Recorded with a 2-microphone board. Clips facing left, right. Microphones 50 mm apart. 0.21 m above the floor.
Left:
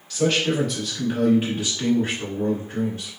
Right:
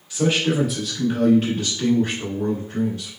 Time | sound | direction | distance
0.1 | a man speaking | 25° right (ahead or behind) | 1.1 m